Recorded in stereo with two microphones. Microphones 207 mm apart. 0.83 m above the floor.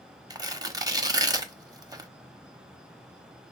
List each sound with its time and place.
0.3 s tearing paper: 20° right (ahead or behind), 0.8 m